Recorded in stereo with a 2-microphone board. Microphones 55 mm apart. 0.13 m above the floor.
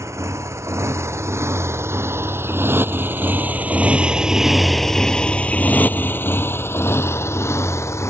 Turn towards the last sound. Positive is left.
turn(degrees=65)  # may be behind; listen again after turning